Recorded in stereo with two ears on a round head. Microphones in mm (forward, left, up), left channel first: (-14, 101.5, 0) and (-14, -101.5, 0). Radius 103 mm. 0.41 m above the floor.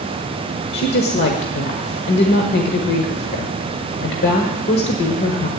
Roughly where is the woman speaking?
Left.